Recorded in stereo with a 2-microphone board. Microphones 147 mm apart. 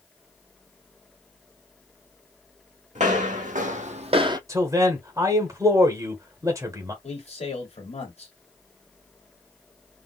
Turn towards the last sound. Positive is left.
turn(degrees=45)  # may be behind; listen again after turning